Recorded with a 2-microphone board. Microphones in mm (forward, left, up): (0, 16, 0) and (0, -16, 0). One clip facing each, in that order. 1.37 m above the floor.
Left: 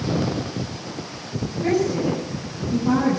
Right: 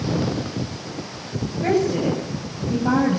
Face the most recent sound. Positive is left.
turn(degrees=-45)  # may be behind; listen again after turning